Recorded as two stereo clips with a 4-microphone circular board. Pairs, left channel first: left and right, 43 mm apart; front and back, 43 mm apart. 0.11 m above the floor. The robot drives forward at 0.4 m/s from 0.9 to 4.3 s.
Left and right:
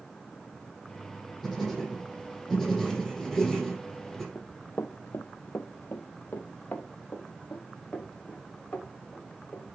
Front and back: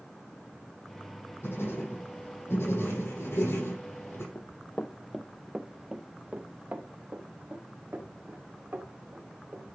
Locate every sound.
1.4 s writing: straight ahead, 4.5 m
4.3 s running footsteps: 35° left, 0.7 m; by 9.7 s 145° left, 3.5 m